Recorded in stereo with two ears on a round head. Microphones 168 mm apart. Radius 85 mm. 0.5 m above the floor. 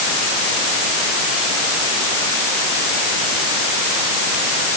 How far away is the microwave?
I don't hear a microwave.